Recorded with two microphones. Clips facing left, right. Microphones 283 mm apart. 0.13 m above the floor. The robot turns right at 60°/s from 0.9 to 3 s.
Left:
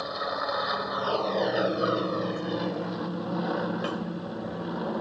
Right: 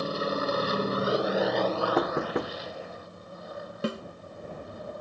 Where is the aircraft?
35° right; by 5.0 s 90° left.